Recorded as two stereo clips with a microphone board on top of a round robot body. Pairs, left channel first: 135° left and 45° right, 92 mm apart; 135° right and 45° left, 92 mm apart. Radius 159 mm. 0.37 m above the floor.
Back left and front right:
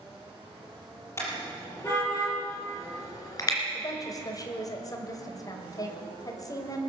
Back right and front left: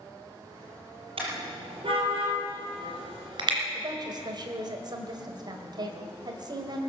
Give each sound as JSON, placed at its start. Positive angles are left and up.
{"t": 1.2, "sound": "a car horn", "azimuth_deg": 75, "distance_m": 5.0}
{"t": 3.7, "sound": "a woman speaking", "azimuth_deg": 85, "distance_m": 2.0}